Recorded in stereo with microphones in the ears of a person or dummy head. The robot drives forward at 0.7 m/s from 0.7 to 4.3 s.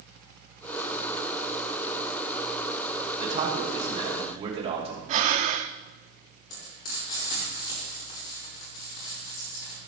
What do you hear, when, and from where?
3.2 s a man speaking: 30° right (ahead or behind), 2 m; by 5.0 s 25° right (ahead or behind), 3 m
5.1 s breathing: 35° right (ahead or behind), 0.5 m
6.5 s frying: 60° left (ahead or behind), 5.5 m